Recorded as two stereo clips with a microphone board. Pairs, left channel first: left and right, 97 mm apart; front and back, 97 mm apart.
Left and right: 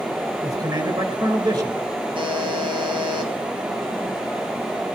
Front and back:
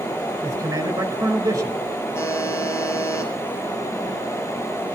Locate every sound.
0.4 s a man speaking: 130° right, 3.5 m
2.1 s a buzzer: 60° right, 3.5 m